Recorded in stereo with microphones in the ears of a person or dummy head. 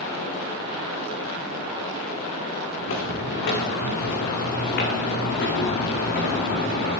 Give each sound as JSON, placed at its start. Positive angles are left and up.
{"t": 2.8, "sound": "footsteps", "side_deg": 60, "distance_m": 8.0}